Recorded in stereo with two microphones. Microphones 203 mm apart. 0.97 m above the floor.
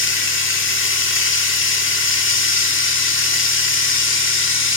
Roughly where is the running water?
Left.